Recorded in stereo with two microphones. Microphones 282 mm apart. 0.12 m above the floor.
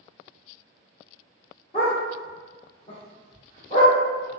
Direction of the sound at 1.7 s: 20° left (ahead or behind).